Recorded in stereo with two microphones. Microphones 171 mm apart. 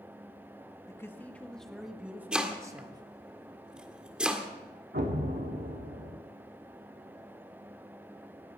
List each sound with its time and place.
0.9 s a man speaking: 15° left (ahead or behind), 1.6 m; by 3.0 s 25° right (ahead or behind), 1.6 m
2.3 s chopping: 5° right (ahead or behind), 1.6 m
4.9 s an explosion: 85° right, 2 m